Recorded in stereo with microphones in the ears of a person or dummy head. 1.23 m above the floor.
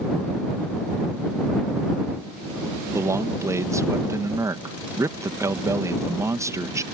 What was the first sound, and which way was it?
A man speaking, 15° right (ahead or behind).